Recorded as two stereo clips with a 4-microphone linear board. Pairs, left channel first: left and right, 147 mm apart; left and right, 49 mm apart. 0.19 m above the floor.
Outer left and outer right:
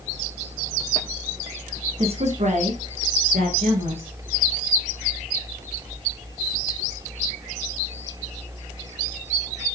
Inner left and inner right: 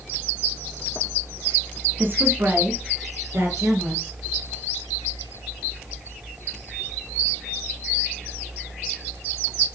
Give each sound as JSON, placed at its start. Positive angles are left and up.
{"t": 2.0, "sound": "a woman speaking", "side_deg": -40, "distance_m": 1.6}